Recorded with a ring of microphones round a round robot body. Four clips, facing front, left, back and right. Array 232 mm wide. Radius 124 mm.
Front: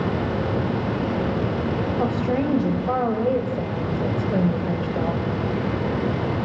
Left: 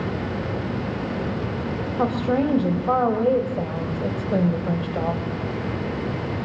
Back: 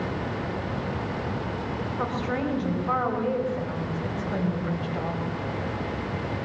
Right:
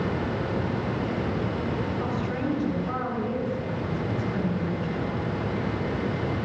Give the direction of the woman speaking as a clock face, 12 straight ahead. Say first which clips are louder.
Left 7 dB, front 4 dB; 10 o'clock.